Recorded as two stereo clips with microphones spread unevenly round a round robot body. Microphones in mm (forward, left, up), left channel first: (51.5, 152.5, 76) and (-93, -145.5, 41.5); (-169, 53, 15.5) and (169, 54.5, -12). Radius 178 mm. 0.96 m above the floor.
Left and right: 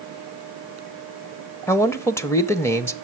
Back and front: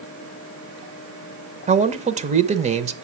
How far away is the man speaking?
About 0.9 m.